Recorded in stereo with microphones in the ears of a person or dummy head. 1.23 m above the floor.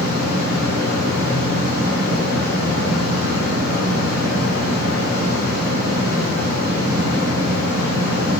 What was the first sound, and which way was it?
A fan, 55° right (ahead or behind).